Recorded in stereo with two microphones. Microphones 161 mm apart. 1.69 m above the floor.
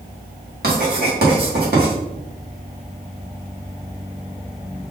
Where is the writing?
85° right, 1.9 m.